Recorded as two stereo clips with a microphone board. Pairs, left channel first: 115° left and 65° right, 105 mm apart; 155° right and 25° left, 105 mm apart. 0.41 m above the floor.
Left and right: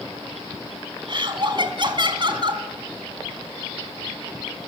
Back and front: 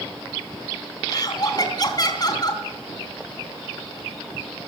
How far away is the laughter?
About 3 m.